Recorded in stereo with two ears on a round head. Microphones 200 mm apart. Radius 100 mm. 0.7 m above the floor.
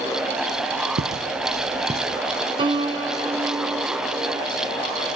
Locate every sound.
1.0 s footsteps: 45° right (ahead or behind), 1.3 m; by 2.2 s 5° right (ahead or behind), 1.3 m
2.6 s a piano: 20° right (ahead or behind), 2 m